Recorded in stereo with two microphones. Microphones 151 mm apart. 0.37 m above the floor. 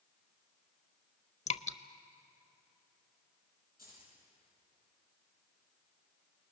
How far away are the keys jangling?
About 9.5 m.